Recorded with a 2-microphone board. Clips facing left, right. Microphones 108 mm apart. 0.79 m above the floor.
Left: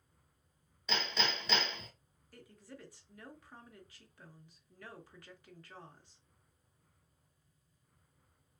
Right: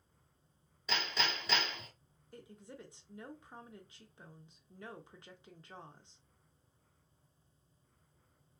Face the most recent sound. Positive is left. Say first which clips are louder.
# right 2 dB
turn(degrees=-25)  # may be behind; listen again after turning